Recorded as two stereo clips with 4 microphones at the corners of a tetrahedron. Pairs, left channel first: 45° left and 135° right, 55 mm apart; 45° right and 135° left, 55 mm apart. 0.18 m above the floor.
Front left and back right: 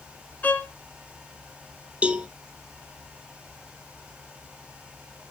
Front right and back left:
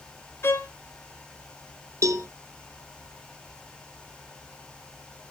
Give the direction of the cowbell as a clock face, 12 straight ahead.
7 o'clock.